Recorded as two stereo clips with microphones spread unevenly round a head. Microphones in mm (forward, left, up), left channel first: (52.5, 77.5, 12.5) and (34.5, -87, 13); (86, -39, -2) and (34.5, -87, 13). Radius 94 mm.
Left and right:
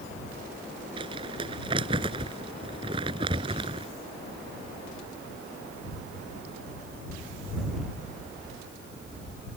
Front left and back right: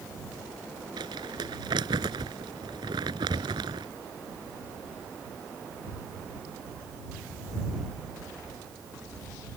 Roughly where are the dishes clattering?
I don't hear dishes clattering.